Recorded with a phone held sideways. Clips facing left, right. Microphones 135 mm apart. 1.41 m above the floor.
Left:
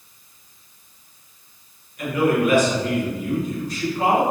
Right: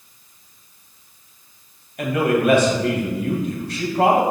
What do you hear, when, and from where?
2.0 s a man speaking: 65° right (ahead or behind), 2 m